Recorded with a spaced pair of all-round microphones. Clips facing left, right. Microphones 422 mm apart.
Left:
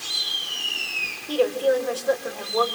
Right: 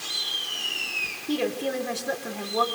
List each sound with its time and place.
1.3 s a woman speaking: 35° right (ahead or behind), 4.5 m